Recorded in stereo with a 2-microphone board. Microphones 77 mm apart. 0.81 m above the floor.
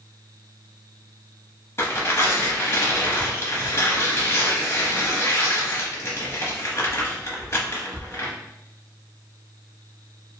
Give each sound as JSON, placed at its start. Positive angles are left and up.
{"t": 1.8, "sound": "tearing paper", "side_deg": 35, "distance_m": 0.7}